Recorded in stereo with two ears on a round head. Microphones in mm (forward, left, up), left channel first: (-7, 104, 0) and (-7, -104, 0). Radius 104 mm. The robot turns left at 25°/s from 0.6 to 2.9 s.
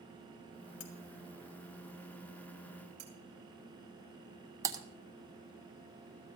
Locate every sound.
0.8 s cutlery clinking: 60° left (ahead or behind), 1.7 m
3.0 s cutlery clinking: 30° right (ahead or behind), 4 m
4.6 s typing on a keyboard: 15° right (ahead or behind), 1.0 m